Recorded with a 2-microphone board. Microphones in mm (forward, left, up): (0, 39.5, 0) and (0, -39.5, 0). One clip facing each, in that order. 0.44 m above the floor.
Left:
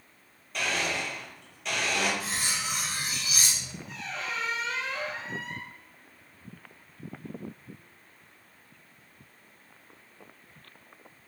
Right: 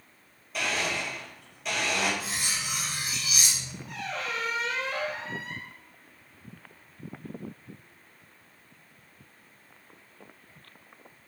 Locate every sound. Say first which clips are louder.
0.5 s a blender: even; 5° right (ahead or behind), 1.5 m
2.2 s cutlery clinking: left 1 dB; 40° left (ahead or behind), 1.0 m
3.9 s a squeak: right 3 dB; 65° right (ahead or behind), 0.8 m